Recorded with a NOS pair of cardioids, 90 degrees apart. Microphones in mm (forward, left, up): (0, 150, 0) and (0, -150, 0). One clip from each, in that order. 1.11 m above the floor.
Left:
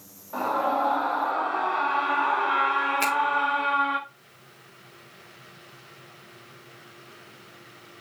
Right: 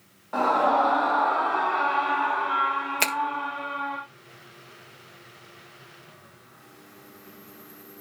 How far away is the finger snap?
About 1.6 m.